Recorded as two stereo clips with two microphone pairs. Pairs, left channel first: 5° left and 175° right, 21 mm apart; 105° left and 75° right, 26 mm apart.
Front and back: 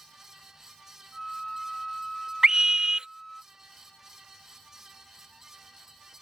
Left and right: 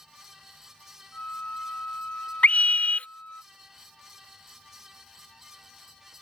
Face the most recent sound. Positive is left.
turn(degrees=135)